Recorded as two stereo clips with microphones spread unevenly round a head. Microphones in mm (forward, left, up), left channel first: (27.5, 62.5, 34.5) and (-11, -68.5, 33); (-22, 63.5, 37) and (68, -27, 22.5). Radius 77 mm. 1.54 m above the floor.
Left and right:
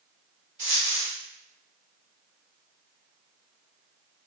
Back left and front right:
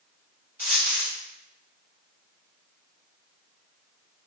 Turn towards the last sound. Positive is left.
turn(degrees=-120)